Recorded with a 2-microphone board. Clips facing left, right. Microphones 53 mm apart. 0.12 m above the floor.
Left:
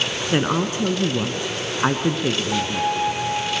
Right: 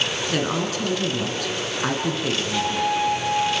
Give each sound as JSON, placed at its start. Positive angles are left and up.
{"t": 0.3, "sound": "a woman speaking", "side_deg": 25, "distance_m": 1.7}
{"t": 2.5, "sound": "a violin", "side_deg": 45, "distance_m": 8.0}